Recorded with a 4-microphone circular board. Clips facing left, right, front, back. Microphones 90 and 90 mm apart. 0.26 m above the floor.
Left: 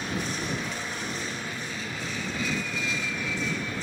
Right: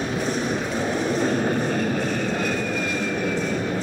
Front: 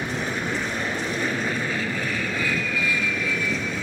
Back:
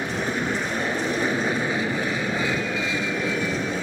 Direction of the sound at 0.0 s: 105° right.